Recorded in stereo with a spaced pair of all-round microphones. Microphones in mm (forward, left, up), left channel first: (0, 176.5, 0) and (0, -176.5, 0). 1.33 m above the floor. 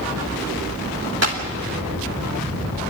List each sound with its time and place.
1.2 s a clap: 45° right (ahead or behind), 2.5 m